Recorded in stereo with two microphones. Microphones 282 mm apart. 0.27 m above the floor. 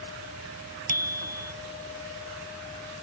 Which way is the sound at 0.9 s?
65° right (ahead or behind).